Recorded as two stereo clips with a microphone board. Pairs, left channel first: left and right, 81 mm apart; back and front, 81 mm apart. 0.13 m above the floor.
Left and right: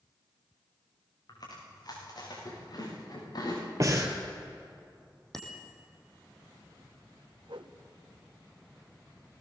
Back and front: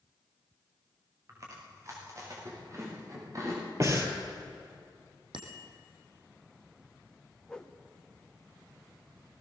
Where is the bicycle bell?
Straight ahead, 3.5 m.